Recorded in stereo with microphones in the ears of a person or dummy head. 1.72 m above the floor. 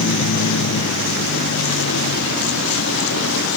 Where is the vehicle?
75° left (ahead or behind); by 3.6 s 70° left (ahead or behind).